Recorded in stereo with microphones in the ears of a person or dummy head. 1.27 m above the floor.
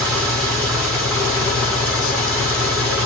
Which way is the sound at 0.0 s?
5° left (ahead or behind).